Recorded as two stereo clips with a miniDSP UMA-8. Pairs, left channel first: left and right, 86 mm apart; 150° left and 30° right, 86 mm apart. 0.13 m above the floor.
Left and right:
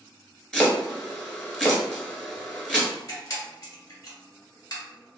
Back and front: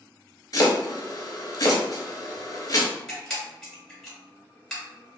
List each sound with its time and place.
0.5 s chopping: 170° left, 0.8 m
3.1 s a camera shutter: 65° left, 1.9 m